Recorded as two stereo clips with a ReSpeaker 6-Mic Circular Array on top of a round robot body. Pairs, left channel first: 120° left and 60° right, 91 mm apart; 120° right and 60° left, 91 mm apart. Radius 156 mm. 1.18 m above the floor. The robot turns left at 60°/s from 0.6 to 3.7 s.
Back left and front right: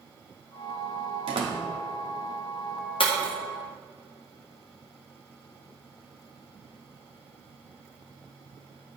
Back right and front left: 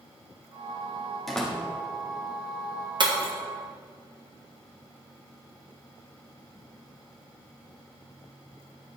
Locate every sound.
1.3 s a door slam: 35° right, 1.6 m; by 1.6 s 55° right, 1.6 m
3.0 s breaking glass: 95° left, 1.4 m; by 3.3 s 75° left, 1.4 m